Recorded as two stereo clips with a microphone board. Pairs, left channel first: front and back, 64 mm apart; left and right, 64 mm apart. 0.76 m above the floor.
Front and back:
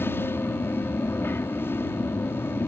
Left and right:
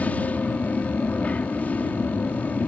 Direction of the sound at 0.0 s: 35° left.